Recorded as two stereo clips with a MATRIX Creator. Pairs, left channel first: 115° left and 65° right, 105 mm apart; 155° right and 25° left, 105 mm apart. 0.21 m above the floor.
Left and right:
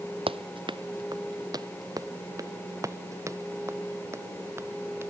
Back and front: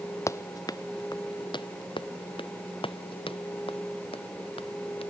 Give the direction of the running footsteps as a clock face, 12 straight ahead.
3 o'clock.